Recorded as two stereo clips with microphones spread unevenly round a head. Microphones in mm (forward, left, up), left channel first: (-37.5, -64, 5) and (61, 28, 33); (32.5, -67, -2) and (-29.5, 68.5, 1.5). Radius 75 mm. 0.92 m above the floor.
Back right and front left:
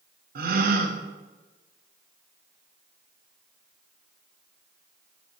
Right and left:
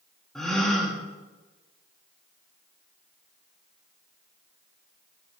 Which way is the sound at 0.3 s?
20° left.